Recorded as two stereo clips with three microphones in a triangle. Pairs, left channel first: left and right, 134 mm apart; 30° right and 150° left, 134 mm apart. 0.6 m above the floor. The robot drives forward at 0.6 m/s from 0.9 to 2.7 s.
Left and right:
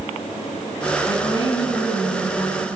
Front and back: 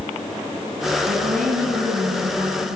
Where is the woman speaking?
140° left, 5.5 m; by 2.8 s 145° left, 6.5 m.